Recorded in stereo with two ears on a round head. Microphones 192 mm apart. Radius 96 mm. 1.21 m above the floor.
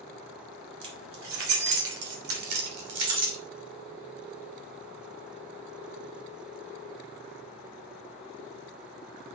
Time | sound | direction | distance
0.8 | keys jangling | 65° right (ahead or behind) | 3.5 m